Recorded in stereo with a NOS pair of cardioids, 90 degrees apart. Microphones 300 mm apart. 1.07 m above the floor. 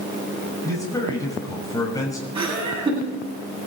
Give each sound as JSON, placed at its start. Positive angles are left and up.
{"t": 0.6, "sound": "a man speaking", "azimuth_deg": 10, "distance_m": 6.5}
{"t": 2.4, "sound": "laughter", "azimuth_deg": -15, "distance_m": 9.0}